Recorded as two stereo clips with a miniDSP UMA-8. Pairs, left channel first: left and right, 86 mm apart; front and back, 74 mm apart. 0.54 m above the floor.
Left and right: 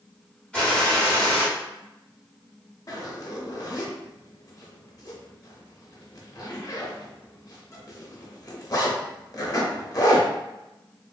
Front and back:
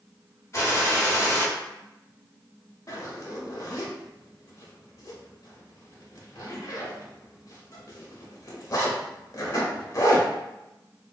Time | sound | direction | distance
0.5 | a gunshot | 20° left | 1.0 m
2.9 | a zipper | 40° left | 0.7 m